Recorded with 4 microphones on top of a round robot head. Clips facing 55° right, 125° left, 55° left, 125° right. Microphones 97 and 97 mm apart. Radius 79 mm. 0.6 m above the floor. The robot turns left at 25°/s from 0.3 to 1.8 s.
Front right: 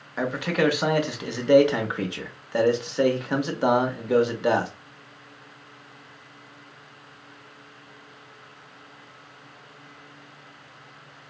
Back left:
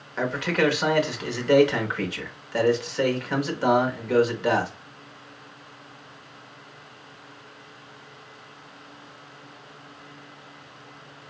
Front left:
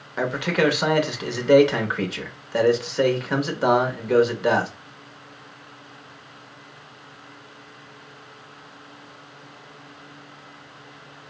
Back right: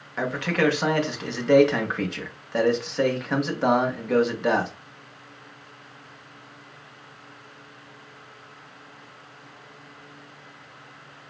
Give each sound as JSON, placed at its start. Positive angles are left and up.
{"t": 0.2, "sound": "a man speaking", "azimuth_deg": 10, "distance_m": 0.9}